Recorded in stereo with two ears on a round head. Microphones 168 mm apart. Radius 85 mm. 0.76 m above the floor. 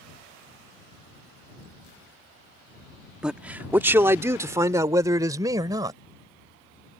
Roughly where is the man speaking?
Centre.